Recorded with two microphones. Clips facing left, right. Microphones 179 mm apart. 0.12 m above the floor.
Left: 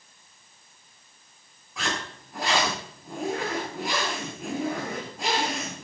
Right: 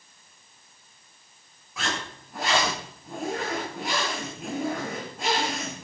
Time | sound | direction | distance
1.8 | a zipper | centre (ahead or behind) | 6.5 m